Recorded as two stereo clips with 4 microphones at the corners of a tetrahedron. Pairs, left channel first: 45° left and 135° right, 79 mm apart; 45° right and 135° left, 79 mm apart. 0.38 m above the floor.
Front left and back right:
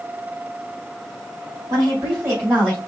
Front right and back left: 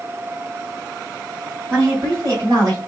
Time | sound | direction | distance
1.7 | a woman speaking | 170° right | 2.5 m